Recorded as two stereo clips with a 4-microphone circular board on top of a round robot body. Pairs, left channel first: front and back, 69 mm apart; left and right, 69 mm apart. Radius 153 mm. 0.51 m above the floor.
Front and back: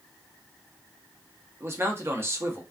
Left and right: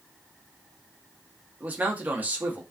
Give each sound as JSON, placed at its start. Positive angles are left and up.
{"t": 1.6, "sound": "a man speaking", "azimuth_deg": -145, "distance_m": 0.9}